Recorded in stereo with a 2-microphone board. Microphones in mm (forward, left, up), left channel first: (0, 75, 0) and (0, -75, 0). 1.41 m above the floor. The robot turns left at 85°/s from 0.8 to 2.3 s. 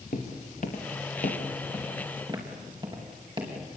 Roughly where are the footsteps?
Left.